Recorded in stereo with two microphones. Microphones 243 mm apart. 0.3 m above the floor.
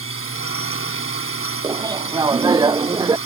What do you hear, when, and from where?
0.0 s a drone: 60° left (ahead or behind)
1.6 s laughter: 15° right (ahead or behind)